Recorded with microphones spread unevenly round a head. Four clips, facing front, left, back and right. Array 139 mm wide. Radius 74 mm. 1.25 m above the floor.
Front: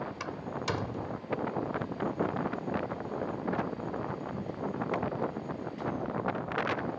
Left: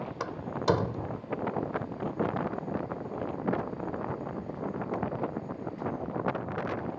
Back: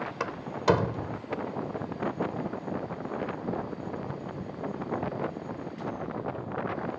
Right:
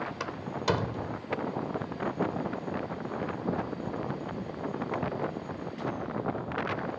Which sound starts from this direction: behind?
A door slam, at 0.2 s.